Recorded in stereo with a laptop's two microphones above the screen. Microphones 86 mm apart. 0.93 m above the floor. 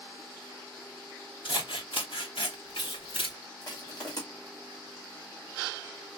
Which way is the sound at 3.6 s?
45° left (ahead or behind).